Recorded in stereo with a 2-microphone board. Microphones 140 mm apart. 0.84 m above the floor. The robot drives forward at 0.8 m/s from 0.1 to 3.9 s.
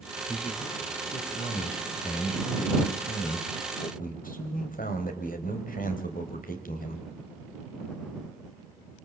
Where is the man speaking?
50° left (ahead or behind), 4.5 m; by 7.0 s 85° left, 3.5 m.